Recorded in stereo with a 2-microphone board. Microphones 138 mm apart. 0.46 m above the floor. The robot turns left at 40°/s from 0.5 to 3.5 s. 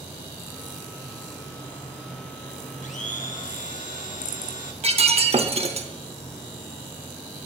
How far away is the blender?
About 0.7 m.